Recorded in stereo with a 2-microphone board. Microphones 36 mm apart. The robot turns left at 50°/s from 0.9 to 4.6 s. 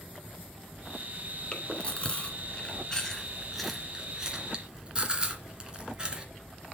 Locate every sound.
1.5 s chewing: 30° left (ahead or behind), 1.9 m; by 6.2 s 25° right (ahead or behind), 1.9 m